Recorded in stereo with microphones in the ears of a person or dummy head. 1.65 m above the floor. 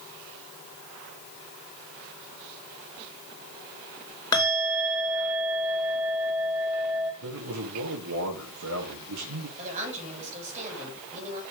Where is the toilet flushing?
I don't hear a toilet flushing.